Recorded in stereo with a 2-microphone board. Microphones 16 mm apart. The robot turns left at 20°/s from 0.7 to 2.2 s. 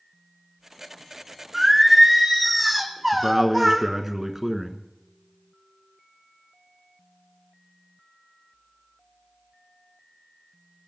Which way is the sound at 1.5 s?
5° right (ahead or behind).